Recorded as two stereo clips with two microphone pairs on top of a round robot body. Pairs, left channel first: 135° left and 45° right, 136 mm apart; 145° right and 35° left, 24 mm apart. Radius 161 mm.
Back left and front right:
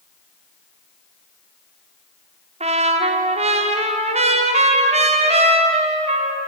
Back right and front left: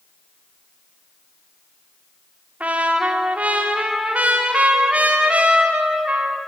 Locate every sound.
2.6 s a trumpet: straight ahead, 1.7 m